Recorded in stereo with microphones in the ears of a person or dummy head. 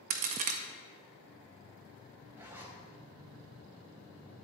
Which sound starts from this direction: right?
A crack, at 0.1 s.